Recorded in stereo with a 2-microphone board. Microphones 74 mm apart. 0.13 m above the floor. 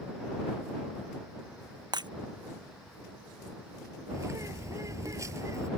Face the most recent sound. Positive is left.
turn(degrees=-45)  # may be behind; listen again after turning